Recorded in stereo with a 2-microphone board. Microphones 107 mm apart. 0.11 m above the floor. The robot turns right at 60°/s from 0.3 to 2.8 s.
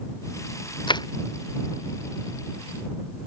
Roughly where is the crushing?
Left.